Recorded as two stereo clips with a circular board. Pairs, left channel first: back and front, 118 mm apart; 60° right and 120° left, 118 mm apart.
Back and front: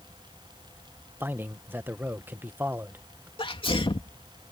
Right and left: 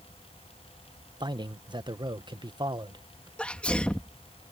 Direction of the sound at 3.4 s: 140° right.